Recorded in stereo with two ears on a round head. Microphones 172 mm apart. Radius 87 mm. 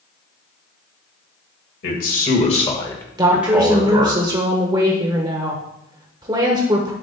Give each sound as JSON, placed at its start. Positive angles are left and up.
{"t": 1.8, "sound": "a man speaking", "side_deg": 55, "distance_m": 2.0}
{"t": 3.2, "sound": "a woman speaking", "side_deg": -20, "distance_m": 1.0}